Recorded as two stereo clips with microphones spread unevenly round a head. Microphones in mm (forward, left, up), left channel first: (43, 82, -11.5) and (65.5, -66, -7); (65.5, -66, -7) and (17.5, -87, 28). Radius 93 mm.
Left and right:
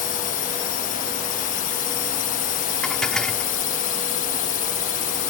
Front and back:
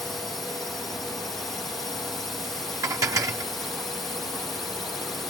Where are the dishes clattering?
175° right.